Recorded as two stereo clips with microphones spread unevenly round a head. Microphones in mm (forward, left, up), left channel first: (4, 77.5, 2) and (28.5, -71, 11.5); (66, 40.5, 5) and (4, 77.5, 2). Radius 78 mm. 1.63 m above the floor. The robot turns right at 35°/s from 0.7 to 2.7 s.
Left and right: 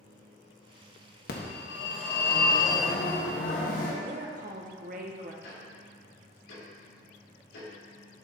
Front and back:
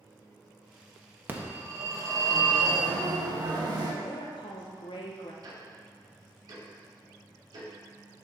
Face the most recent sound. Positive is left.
turn(degrees=125)